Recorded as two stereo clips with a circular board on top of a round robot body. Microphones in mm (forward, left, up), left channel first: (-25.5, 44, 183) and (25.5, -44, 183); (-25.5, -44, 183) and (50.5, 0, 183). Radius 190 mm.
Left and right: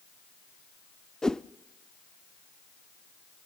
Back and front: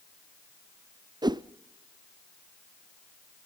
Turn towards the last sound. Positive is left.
turn(degrees=35)